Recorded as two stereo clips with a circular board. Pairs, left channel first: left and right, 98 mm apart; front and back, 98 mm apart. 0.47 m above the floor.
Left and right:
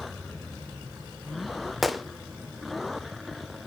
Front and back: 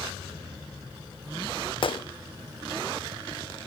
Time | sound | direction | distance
1.8 | a gunshot | straight ahead | 0.5 m